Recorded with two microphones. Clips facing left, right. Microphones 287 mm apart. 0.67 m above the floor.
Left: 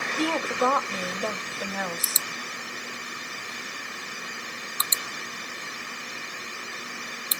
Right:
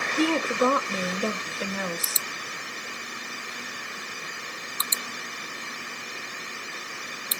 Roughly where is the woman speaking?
Right.